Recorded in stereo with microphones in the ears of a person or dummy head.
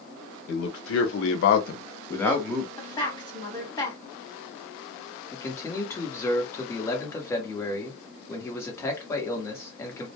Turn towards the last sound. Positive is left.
turn(degrees=10)  # may be behind; listen again after turning